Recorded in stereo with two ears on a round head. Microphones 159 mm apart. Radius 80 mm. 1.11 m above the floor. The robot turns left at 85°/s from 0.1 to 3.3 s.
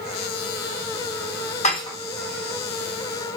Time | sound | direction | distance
1.6 | dishes clattering | 40° left (ahead or behind) | 0.9 m